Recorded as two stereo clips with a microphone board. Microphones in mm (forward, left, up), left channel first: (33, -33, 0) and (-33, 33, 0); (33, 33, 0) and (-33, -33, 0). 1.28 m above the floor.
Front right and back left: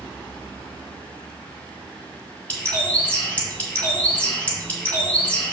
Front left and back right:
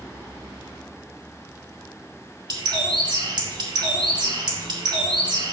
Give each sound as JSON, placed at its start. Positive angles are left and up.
{"t": 2.5, "sound": "a bird", "azimuth_deg": -115, "distance_m": 2.0}